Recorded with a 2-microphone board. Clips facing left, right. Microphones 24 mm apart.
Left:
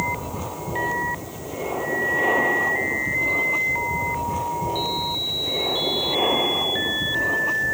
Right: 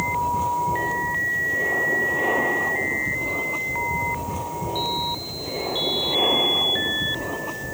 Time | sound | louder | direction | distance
0.0 | an aircraft | right 5 dB | 5° left (ahead or behind) | ?